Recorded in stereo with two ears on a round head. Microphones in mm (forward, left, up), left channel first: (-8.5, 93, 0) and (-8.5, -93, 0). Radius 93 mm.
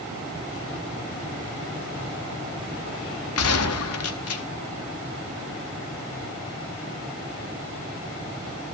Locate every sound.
3.4 s a gunshot: 80° left, 1.0 m